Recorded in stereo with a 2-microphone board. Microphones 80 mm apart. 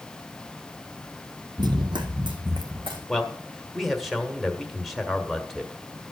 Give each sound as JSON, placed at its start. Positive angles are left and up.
{"t": 1.6, "sound": "running footsteps", "side_deg": -65, "distance_m": 0.9}
{"t": 3.1, "sound": "a man speaking", "side_deg": 0, "distance_m": 1.5}